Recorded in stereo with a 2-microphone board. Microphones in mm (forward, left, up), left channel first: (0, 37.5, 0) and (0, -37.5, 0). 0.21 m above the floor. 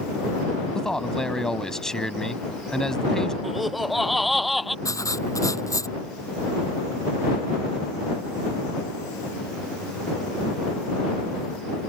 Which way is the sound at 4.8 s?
45° left (ahead or behind).